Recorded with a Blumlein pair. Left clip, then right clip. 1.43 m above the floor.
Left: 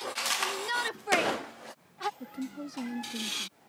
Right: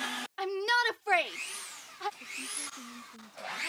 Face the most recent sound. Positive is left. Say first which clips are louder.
# right 1 dB
turn(degrees=55)